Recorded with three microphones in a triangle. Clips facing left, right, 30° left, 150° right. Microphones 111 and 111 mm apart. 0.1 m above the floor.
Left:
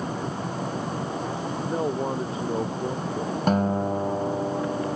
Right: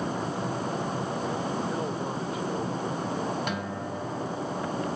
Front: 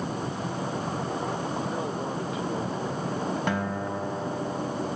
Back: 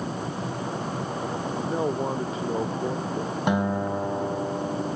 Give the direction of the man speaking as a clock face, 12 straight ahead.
7 o'clock.